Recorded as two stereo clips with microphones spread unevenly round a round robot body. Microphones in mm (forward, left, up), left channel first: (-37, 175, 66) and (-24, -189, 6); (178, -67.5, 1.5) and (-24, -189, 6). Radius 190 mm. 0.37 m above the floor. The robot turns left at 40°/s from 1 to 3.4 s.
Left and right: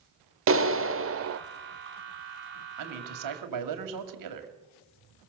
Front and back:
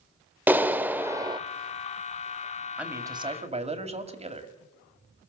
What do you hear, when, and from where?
0.5 s a clap: 70° right, 0.8 m; by 1.4 s 85° right, 0.8 m
2.8 s a man speaking: 65° right, 2.5 m; by 4.5 s 90° right, 2.5 m